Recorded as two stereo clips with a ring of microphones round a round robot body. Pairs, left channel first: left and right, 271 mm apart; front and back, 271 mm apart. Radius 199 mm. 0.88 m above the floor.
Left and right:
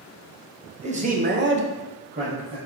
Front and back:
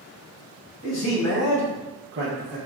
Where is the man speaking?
25° right, 1.0 m; by 2.6 s 160° right, 0.8 m.